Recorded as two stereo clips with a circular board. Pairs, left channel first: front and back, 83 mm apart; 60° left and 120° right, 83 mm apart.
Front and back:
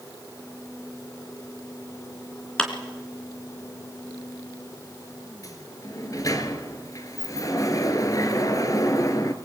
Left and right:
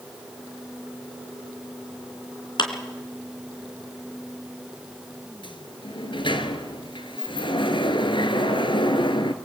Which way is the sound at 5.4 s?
45° left.